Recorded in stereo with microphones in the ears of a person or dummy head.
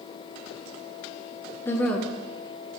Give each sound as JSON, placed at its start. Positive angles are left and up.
{"t": 1.6, "sound": "a woman speaking", "side_deg": 15, "distance_m": 1.0}